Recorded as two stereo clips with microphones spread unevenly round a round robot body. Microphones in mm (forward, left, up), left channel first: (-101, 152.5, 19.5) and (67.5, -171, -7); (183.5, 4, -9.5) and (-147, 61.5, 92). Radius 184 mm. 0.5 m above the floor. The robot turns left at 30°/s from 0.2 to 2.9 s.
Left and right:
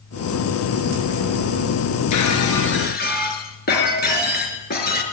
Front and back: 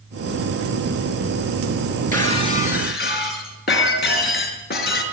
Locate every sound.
2.1 s breaking glass: 75° left, 5.5 m; by 5.0 s 50° left, 5.5 m